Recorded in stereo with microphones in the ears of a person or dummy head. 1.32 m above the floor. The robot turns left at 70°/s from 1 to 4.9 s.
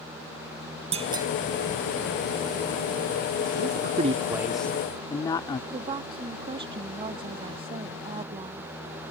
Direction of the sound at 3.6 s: 110° right.